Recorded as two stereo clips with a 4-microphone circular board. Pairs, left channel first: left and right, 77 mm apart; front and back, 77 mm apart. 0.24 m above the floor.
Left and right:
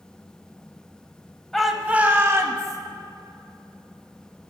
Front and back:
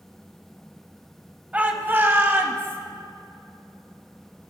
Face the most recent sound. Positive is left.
turn(degrees=-130)